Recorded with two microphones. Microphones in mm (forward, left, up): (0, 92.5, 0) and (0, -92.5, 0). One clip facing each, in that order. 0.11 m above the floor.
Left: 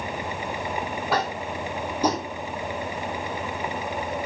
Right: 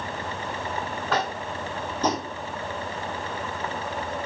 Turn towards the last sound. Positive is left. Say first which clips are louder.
# left 1 dB
turn(degrees=10)  # may be behind; listen again after turning